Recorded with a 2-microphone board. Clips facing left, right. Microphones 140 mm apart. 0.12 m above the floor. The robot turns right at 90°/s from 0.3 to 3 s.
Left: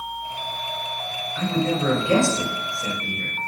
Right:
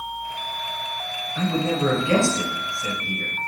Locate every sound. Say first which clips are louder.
1.4 s a man speaking: even; 55° right, 1.9 m; by 3.4 s 90° left, 1.9 m